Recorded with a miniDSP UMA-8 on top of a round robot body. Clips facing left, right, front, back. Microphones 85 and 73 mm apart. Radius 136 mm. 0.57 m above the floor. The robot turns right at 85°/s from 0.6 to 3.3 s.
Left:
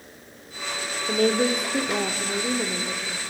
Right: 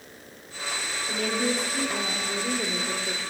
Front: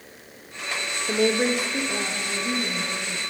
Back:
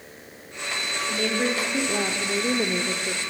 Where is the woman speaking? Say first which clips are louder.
Left 6 dB, front 5 dB; 35° left, 2 m; by 3.3 s 135° right, 2 m.